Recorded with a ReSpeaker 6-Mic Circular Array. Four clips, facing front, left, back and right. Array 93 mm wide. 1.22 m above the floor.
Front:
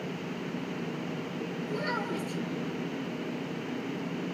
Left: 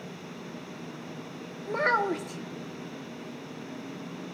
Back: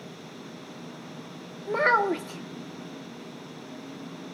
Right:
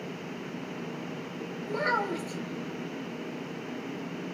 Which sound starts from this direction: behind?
A child speaking, at 1.7 s.